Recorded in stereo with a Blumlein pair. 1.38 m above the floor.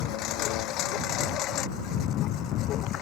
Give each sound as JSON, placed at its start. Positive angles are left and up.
{"t": 0.0, "sound": "a lawn mower", "azimuth_deg": 35}